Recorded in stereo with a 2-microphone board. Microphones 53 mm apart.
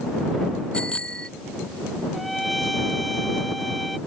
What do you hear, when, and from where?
0.7 s a bicycle bell: 20° left (ahead or behind)
2.1 s a trumpet: centre (ahead or behind)